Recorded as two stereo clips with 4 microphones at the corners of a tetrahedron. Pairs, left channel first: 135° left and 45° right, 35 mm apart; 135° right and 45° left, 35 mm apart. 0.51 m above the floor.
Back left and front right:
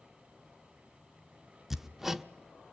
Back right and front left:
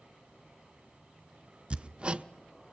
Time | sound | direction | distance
1.7 | hammering | 25° left | 0.8 m